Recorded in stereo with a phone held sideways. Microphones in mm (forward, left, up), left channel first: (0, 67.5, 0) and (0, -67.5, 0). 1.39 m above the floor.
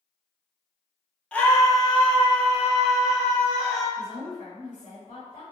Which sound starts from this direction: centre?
A scream, at 1.3 s.